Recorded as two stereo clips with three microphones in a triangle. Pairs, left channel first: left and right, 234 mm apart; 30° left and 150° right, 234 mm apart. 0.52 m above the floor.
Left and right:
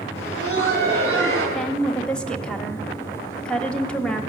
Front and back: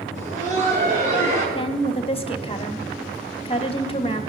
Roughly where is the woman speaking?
Ahead.